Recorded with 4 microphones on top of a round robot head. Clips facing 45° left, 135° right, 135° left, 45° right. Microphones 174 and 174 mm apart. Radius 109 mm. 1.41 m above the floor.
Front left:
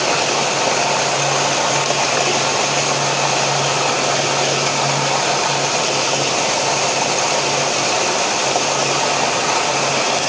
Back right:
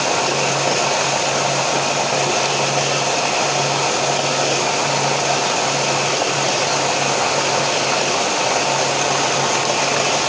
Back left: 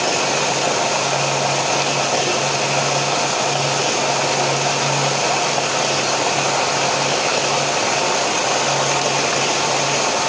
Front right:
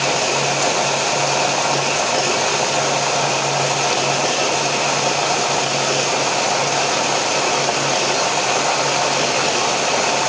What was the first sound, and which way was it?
Only background noise.